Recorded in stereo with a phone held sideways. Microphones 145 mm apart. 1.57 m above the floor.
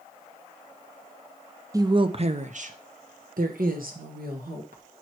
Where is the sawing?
No sawing in this recording.